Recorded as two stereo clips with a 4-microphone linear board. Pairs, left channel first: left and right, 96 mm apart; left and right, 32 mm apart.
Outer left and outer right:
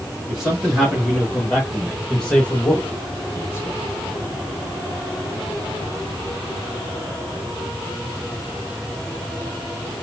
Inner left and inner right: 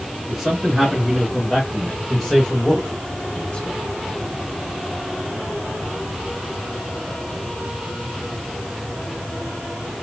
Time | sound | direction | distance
0.3 | a man speaking | 5° right (ahead or behind) | 3 m